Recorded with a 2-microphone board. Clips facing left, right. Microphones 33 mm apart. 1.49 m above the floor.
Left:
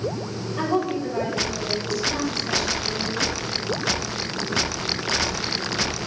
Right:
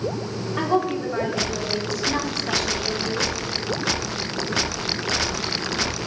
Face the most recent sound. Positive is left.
turn(degrees=-75)  # may be behind; listen again after turning